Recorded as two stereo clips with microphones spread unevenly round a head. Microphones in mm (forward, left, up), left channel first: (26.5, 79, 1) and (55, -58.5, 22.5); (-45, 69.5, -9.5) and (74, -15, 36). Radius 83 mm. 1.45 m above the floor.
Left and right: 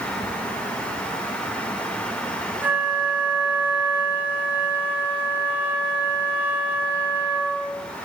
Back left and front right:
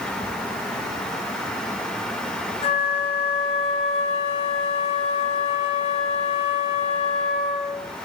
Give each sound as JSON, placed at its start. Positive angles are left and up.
{"t": 2.6, "sound": "a flute", "azimuth_deg": -160, "distance_m": 1.6}